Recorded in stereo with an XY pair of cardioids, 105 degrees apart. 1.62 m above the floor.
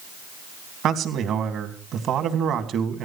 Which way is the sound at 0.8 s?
70° right.